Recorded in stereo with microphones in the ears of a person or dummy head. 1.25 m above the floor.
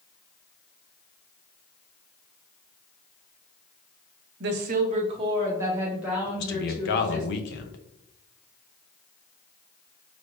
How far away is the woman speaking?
About 0.7 m.